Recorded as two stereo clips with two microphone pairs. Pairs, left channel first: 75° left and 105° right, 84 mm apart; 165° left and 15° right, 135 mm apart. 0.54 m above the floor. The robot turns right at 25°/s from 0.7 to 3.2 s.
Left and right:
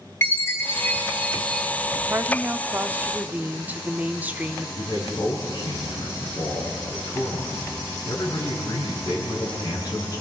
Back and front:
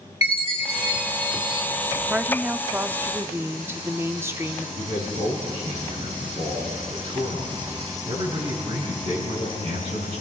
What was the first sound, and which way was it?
A chime, 130° left.